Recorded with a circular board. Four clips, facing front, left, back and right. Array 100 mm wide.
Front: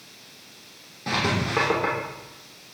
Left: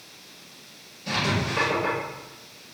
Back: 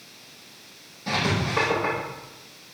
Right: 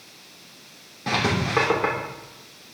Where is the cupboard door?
I don't hear a cupboard door.